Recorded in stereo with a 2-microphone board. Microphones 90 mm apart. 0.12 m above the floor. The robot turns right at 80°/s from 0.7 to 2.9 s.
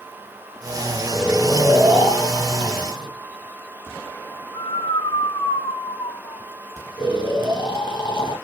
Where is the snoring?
20° right (ahead or behind), 4.5 m; by 8.3 s 60° left (ahead or behind), 4.5 m.